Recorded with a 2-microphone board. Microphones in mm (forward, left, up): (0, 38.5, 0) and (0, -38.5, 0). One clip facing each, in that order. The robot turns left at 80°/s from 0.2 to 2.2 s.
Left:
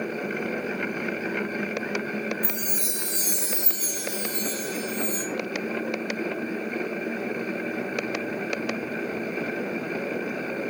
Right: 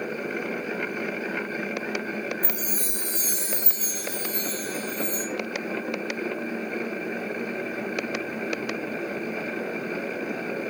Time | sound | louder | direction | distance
2.4 | a chime | even | 40° right (ahead or behind) | 0.7 m